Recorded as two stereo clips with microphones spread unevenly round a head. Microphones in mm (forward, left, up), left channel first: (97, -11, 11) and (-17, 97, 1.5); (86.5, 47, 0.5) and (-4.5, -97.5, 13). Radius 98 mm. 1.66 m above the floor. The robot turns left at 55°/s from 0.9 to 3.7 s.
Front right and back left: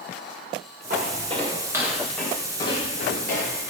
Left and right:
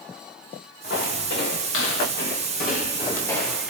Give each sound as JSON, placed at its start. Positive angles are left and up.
{"t": 0.9, "sound": "footsteps", "azimuth_deg": 105, "distance_m": 5.5}